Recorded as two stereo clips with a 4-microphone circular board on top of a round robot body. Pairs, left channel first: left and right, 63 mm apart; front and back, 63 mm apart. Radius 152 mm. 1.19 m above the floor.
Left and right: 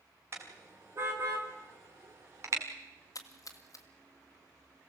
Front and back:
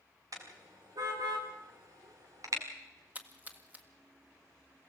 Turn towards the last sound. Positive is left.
turn(degrees=120)